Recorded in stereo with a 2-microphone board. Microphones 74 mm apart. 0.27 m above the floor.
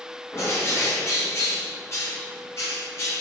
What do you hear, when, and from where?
0.3 s a bird: 35° left (ahead or behind), 3 m